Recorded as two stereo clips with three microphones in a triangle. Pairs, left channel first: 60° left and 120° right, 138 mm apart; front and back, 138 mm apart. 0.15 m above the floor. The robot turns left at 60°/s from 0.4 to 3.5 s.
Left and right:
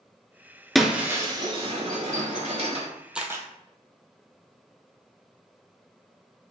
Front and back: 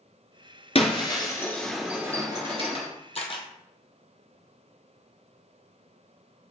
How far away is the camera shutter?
About 0.9 m.